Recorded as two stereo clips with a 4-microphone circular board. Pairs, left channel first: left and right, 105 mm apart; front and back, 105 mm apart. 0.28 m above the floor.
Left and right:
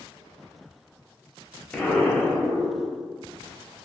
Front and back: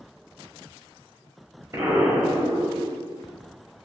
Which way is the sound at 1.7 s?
160° left.